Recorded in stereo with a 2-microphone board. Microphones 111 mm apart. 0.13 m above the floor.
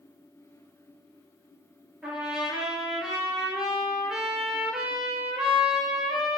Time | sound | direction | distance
2.0 | a trumpet | 5° right (ahead or behind) | 2.5 m